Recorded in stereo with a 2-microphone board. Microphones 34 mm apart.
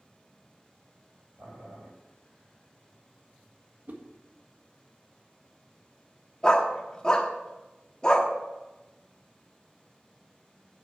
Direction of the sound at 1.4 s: 60° right (ahead or behind).